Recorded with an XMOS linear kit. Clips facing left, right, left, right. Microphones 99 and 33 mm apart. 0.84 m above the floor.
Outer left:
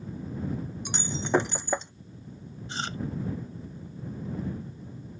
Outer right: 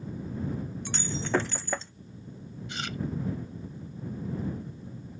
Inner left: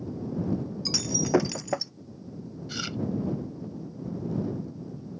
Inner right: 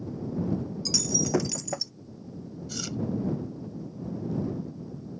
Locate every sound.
0.8 s breaking glass: 20° left (ahead or behind)
2.7 s chewing: 35° left (ahead or behind)